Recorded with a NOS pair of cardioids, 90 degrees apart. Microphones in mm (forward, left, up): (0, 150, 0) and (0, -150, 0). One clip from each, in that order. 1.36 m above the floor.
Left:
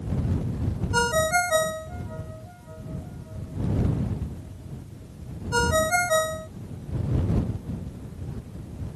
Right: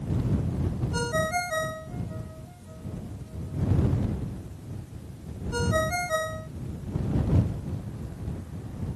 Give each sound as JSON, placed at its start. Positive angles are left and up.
{"t": 0.9, "sound": "a ringtone", "azimuth_deg": 35}